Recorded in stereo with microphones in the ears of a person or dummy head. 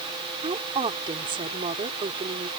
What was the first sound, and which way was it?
A woman speaking, 30° right (ahead or behind).